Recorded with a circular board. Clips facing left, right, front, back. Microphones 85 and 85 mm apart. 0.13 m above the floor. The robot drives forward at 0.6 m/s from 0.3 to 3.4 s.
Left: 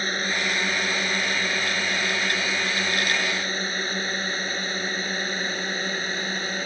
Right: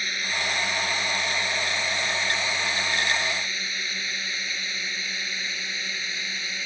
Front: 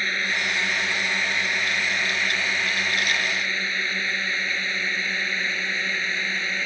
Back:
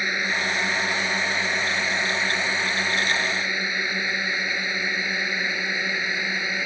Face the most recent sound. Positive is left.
turn(degrees=105)